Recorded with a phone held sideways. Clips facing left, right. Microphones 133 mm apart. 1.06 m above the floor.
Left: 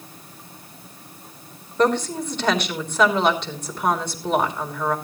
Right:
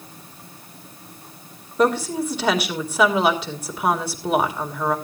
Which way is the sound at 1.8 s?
5° right (ahead or behind).